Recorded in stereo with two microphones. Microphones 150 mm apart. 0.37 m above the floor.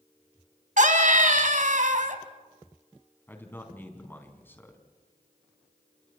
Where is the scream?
65° right (ahead or behind), 2.5 m.